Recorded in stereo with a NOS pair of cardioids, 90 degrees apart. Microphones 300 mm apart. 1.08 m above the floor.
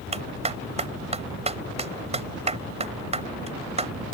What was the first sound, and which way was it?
A clap, 20° right.